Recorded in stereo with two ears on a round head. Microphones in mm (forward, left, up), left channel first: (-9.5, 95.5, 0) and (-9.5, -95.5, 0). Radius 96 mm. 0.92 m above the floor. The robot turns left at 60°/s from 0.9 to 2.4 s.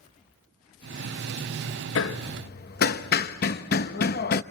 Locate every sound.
1.9 s hammering: 60° left (ahead or behind), 0.9 m; by 4.4 s 45° left (ahead or behind), 0.9 m